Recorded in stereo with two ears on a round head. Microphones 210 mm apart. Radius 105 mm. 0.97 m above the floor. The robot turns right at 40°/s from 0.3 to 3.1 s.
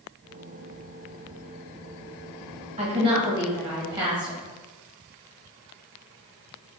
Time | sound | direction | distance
2.8 | a woman speaking | 30° right (ahead or behind) | 1.4 m